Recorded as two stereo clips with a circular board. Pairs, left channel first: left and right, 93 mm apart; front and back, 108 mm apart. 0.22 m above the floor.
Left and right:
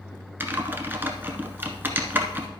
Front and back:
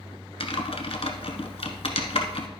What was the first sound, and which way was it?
Typing on a keyboard, 25° right.